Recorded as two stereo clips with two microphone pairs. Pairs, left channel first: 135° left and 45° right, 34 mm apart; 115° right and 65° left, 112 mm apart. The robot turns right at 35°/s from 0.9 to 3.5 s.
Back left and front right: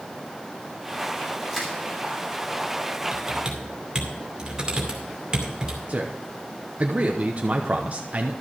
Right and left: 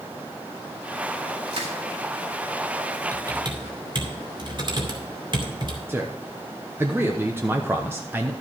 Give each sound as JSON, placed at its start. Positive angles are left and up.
{"t": 1.5, "sound": "crushing", "azimuth_deg": 35, "distance_m": 3.0}
{"t": 3.1, "sound": "typing on a keyboard", "azimuth_deg": 10, "distance_m": 2.5}
{"t": 5.9, "sound": "a man speaking", "azimuth_deg": 0, "distance_m": 1.0}